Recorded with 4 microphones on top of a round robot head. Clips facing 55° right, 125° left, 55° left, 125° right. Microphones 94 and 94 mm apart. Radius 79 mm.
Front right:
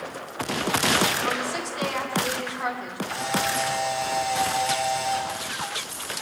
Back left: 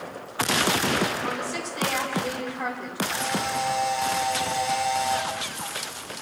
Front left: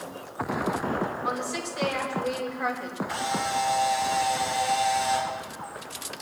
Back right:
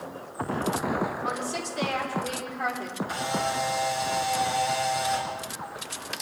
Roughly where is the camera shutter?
Behind.